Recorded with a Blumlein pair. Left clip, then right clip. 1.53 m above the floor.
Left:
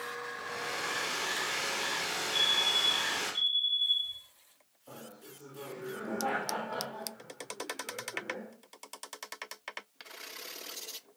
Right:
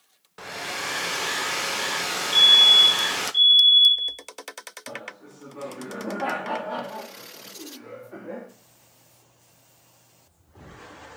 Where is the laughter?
40° right, 3.5 m.